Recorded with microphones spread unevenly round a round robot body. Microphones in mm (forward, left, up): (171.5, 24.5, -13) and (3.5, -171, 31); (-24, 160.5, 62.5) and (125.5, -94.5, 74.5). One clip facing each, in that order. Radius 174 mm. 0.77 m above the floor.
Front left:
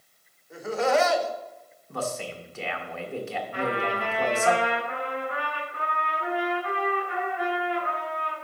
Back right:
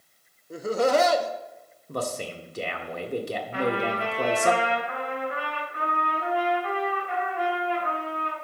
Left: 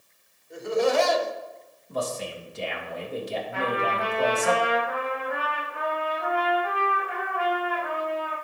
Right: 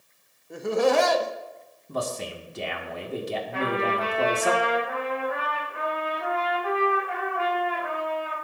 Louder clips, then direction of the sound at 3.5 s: Back right 3 dB, right 2 dB; 150° right.